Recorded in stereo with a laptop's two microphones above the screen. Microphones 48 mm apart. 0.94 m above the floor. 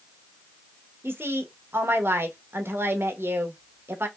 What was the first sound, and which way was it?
A woman speaking, 55° right (ahead or behind).